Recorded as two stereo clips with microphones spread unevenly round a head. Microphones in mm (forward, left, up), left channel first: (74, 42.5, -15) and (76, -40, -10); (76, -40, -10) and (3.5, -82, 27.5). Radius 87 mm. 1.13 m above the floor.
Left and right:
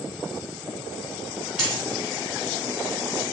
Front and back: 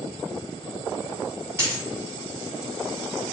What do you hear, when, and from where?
1.6 s a dropped coin: 160° right, 1.6 m